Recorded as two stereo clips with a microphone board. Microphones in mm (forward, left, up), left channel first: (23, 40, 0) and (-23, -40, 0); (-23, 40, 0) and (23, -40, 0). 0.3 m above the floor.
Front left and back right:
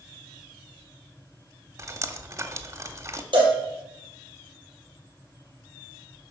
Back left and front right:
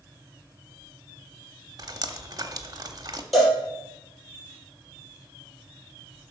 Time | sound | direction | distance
1.8 | dripping | 75° right | 0.9 m
3.3 | a cowbell | 150° right | 4.5 m